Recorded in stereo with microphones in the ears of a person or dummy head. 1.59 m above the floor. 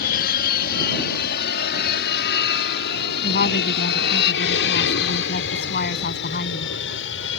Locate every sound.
0.0 s an aircraft: 55° left (ahead or behind); by 7.4 s 70° left (ahead or behind)
3.2 s a woman speaking: 55° left (ahead or behind)